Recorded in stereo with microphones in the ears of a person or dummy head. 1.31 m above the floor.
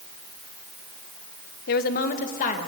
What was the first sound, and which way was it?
A woman speaking, 55° left (ahead or behind).